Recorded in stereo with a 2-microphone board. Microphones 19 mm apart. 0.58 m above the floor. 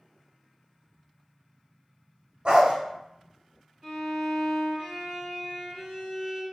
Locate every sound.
2.5 s a dog barking: 45° right (ahead or behind), 0.9 m
3.8 s a violin: 25° right (ahead or behind), 1.7 m